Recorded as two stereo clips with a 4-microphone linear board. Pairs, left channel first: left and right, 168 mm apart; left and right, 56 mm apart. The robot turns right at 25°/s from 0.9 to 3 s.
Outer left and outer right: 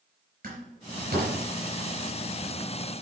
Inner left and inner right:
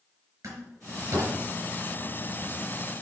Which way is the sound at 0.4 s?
55° right (ahead or behind).